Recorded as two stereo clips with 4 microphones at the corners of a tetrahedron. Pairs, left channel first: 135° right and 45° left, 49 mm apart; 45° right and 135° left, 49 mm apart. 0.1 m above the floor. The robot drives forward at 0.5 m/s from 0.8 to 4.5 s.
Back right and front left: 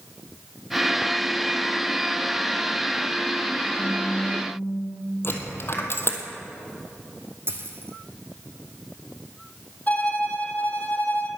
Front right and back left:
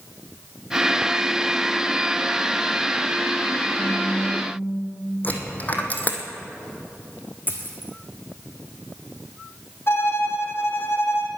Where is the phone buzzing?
125° right, 5 m; by 4.5 s 130° right, 5 m.